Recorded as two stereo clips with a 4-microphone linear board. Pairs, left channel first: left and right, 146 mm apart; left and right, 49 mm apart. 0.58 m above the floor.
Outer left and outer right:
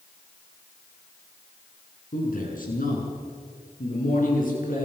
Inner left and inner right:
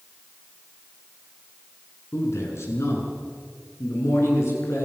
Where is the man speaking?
65° left (ahead or behind), 7 m.